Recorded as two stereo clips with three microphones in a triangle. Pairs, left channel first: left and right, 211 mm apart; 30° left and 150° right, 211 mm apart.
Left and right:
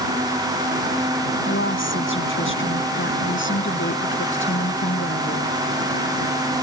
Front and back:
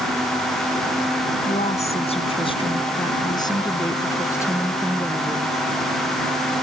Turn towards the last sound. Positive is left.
turn(degrees=110)